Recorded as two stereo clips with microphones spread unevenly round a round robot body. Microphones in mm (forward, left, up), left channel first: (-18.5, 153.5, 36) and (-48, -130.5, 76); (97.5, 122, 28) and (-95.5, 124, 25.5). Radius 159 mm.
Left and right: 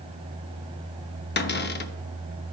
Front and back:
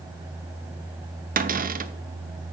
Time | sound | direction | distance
1.4 | a cupboard door | 135° left | 0.7 m